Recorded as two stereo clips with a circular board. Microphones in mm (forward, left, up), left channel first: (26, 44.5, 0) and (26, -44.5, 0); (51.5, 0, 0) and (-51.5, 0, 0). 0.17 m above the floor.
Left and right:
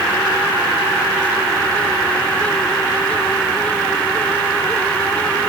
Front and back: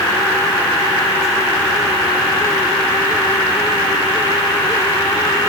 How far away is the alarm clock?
I don't hear an alarm clock.